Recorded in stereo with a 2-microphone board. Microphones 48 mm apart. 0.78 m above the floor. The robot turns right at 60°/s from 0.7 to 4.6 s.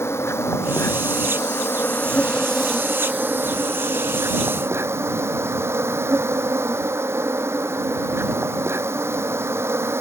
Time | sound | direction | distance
0.0 | an insect | 65° left | ?